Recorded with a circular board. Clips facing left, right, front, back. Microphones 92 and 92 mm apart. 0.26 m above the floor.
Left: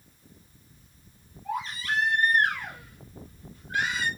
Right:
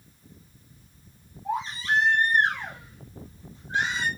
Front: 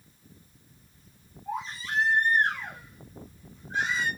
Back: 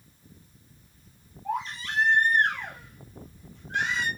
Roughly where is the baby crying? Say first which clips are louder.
Right 3 dB, back 3 dB; behind right.